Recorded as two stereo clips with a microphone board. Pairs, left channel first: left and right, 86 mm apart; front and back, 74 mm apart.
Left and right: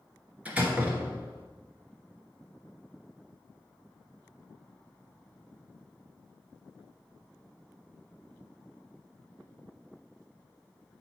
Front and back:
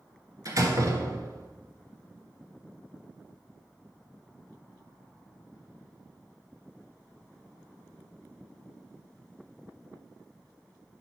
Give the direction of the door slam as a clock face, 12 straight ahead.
5 o'clock.